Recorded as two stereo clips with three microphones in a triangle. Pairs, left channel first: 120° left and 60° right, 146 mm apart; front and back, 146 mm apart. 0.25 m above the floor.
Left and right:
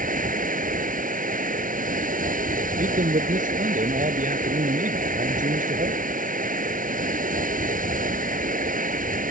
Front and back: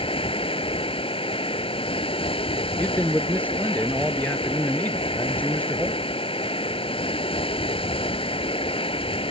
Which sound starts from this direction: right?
A man speaking, at 2.8 s.